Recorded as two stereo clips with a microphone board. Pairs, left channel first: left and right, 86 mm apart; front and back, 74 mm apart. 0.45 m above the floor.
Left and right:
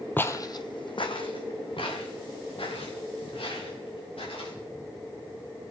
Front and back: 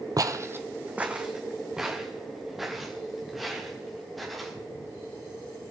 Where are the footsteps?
155° left, 0.7 m; by 4.5 s 90° left, 6 m.